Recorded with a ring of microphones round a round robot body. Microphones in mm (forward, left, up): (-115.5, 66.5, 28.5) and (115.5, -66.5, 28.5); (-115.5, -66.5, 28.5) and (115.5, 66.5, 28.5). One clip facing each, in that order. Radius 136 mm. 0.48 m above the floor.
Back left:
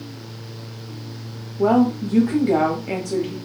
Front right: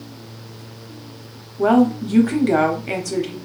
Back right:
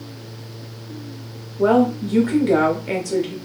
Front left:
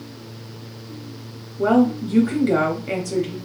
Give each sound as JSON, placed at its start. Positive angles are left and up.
{"t": 1.6, "sound": "a woman speaking", "azimuth_deg": -55, "distance_m": 0.7}